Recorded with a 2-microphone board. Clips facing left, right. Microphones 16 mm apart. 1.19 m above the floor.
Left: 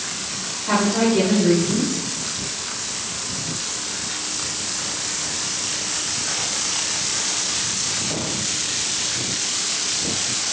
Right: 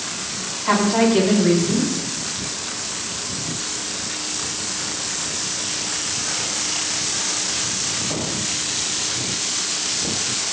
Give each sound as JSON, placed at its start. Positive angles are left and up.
{"t": 0.7, "sound": "a woman speaking", "side_deg": -85, "distance_m": 8.0}